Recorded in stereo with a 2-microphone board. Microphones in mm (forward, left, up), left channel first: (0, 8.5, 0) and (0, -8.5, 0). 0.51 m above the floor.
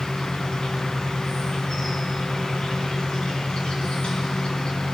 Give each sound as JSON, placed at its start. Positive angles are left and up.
{"t": 0.0, "sound": "an insect", "side_deg": 75, "distance_m": 3.5}